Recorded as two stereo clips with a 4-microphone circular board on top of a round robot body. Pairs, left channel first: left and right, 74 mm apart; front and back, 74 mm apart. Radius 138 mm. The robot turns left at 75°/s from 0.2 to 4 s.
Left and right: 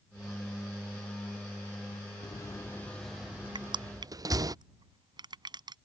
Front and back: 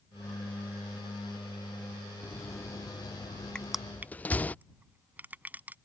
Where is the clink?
I don't hear a clink.